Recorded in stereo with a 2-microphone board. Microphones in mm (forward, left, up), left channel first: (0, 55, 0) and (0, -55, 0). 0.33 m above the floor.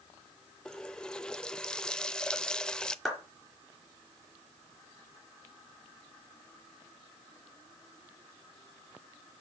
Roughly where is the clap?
Centre.